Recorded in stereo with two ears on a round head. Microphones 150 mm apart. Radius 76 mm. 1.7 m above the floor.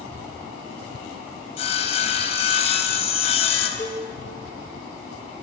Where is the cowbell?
20° left (ahead or behind), 3.5 m.